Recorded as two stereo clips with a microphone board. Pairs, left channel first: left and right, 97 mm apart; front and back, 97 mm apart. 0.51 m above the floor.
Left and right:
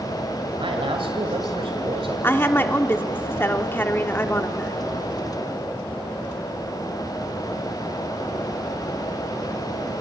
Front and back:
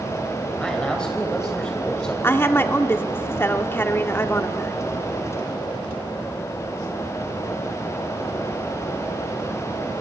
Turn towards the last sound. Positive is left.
turn(degrees=45)